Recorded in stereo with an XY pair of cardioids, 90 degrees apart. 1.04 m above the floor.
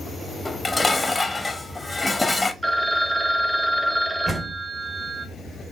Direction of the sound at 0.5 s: 15° left.